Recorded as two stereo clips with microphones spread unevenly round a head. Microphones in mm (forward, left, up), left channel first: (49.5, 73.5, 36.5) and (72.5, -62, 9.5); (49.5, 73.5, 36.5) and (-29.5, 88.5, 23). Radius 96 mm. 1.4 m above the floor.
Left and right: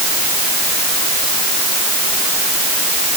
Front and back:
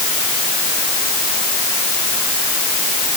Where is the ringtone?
I don't hear a ringtone.